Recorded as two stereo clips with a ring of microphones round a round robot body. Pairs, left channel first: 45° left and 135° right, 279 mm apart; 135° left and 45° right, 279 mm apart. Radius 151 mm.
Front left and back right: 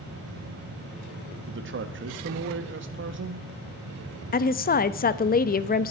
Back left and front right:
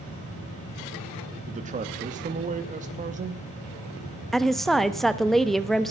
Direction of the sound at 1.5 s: 100° right.